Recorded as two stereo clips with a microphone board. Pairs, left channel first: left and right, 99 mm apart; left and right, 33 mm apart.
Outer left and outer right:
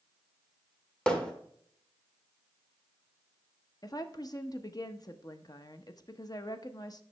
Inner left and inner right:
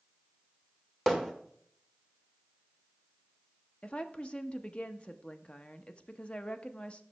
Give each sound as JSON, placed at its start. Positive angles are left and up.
{"t": 1.1, "sound": "hammering", "side_deg": 10, "distance_m": 1.3}
{"t": 3.8, "sound": "a woman speaking", "side_deg": 40, "distance_m": 0.8}